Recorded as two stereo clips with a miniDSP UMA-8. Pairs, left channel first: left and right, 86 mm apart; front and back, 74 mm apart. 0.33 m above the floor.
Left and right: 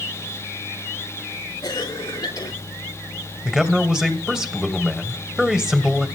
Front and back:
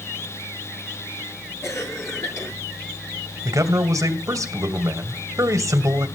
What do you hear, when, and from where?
1.6 s a cough: 50° left, 3.5 m
3.5 s a man speaking: 170° right, 2 m